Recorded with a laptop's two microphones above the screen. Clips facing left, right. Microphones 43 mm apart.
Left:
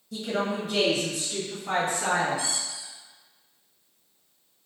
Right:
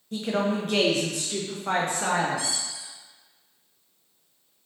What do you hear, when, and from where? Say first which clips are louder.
0.1 s a woman speaking: right 2 dB; 40° right (ahead or behind), 0.8 m; by 2.6 s 50° right (ahead or behind), 1.6 m
2.4 s a squeak: even; 80° right, 1.4 m